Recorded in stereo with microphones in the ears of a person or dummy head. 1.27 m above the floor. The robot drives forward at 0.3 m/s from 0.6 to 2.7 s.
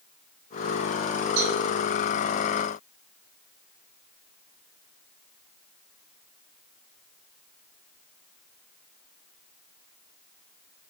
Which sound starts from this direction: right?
A cowbell, at 1.4 s.